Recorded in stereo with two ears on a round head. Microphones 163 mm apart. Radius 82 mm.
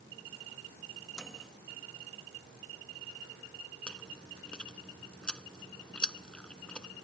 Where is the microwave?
5° left (ahead or behind).